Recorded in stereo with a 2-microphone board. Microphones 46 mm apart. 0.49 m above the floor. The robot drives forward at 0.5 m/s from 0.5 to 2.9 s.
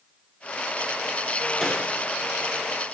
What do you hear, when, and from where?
1.6 s a snare drum: 10° left (ahead or behind), 2.5 m